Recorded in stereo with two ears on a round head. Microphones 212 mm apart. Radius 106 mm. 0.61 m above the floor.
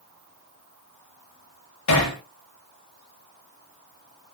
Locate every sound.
1.9 s hammering: 80° left, 7.5 m